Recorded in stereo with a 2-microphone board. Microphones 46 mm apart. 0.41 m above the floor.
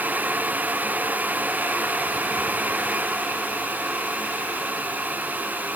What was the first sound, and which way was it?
Only background noise.